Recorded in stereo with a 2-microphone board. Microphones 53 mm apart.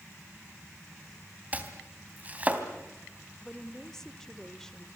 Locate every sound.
1.5 s chopping: 25° right (ahead or behind), 3 m
3.4 s a woman speaking: 10° left (ahead or behind), 1.4 m